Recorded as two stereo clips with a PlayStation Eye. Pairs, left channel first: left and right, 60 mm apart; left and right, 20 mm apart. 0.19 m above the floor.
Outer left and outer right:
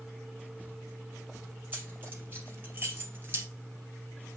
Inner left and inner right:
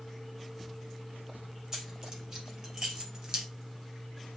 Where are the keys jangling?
30° right (ahead or behind), 3.5 m; by 3.5 s 35° right (ahead or behind), 1.9 m.